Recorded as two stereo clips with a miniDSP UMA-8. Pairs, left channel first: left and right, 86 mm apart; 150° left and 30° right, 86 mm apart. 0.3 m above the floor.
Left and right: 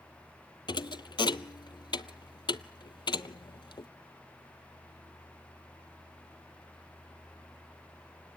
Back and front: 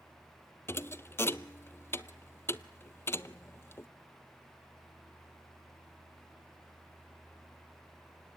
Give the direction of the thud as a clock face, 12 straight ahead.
9 o'clock.